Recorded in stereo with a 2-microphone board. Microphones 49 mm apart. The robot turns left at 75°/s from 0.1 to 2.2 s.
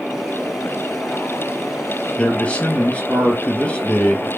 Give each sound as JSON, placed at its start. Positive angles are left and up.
{"t": 2.2, "sound": "a man speaking", "side_deg": 30, "distance_m": 3.0}